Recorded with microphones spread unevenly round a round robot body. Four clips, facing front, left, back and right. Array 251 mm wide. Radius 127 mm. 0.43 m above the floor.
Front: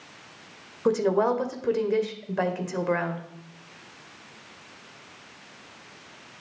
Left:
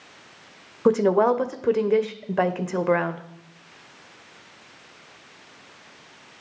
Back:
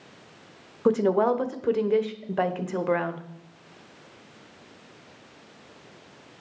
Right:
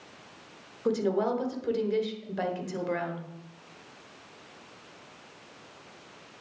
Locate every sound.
0.8 s a woman speaking: 85° left, 1.4 m